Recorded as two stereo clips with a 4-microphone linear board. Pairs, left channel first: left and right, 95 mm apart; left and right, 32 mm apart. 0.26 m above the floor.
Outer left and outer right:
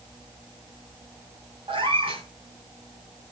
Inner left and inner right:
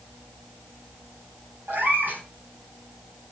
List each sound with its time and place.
1.7 s a cat meowing: 70° right (ahead or behind), 5.5 m